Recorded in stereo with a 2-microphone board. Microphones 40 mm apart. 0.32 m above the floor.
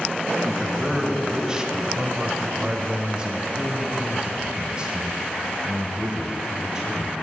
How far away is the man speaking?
About 2 m.